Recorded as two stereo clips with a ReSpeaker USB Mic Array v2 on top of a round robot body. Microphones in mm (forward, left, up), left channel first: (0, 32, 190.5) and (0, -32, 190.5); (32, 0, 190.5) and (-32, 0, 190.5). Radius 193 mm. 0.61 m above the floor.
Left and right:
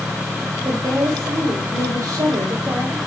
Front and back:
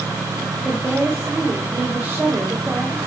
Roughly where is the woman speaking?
Right.